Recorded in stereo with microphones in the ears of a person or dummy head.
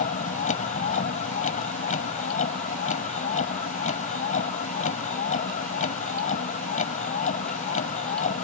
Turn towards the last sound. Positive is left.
turn(degrees=45)  # may be behind; listen again after turning